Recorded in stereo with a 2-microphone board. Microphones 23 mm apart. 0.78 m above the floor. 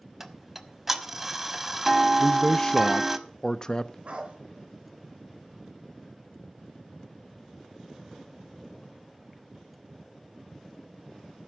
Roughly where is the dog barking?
Right.